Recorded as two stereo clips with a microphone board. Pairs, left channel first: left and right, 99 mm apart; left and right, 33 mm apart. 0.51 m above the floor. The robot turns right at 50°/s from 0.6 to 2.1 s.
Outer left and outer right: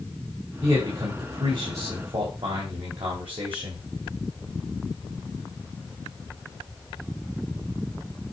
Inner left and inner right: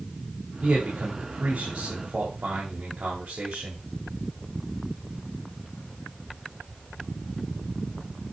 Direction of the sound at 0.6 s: 150° right.